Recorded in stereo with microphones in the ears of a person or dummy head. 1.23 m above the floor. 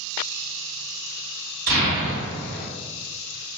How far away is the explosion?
About 1.7 m.